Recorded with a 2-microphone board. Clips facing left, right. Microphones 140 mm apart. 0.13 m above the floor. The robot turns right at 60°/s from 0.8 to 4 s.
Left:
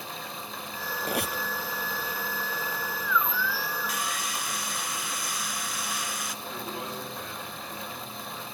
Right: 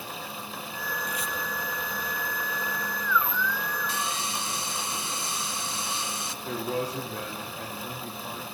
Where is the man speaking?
80° right, 8.5 m.